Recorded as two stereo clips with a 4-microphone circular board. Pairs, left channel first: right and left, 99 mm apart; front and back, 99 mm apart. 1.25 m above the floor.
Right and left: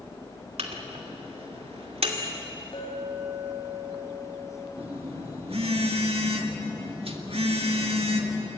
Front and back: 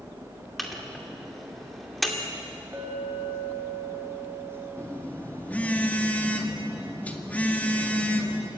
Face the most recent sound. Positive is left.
turn(degrees=75)